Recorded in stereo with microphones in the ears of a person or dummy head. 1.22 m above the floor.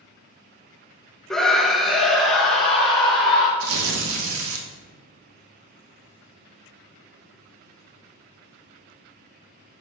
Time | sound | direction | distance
1.3 | a scream | centre (ahead or behind) | 0.7 m
3.6 | tearing paper | 80° right | 1.1 m